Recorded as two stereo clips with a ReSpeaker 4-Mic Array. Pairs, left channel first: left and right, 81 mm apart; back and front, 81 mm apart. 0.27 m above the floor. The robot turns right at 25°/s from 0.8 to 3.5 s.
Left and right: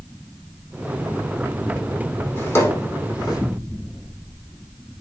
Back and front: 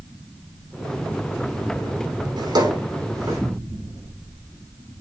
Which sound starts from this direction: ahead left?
A drawer, at 2.4 s.